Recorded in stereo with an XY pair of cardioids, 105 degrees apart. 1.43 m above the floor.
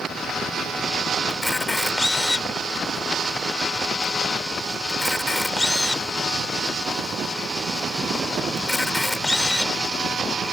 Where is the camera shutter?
15° left.